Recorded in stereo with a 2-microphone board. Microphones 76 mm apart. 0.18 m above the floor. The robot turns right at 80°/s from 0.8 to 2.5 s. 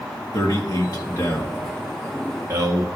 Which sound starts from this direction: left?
A man speaking, at 0.3 s.